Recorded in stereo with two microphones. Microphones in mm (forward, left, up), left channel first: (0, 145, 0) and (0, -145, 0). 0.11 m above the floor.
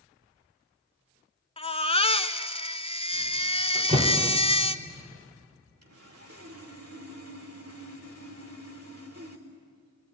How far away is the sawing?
About 3.5 m.